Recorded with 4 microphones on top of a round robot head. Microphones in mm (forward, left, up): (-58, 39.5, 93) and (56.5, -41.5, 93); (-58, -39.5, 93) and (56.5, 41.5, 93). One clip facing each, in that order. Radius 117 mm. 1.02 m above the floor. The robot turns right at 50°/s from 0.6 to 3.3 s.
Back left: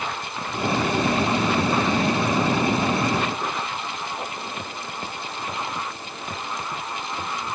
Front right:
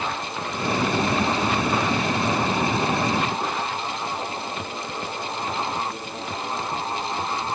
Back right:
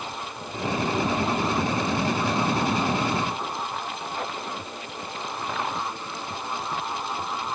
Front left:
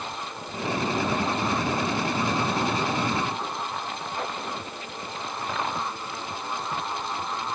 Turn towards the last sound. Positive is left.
No sound to turn to.